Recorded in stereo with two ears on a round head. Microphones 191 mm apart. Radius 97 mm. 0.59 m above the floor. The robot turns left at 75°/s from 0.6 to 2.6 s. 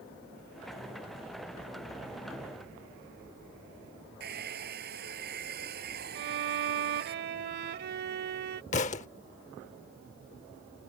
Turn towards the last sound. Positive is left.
turn(degrees=35)  # may be behind; listen again after turning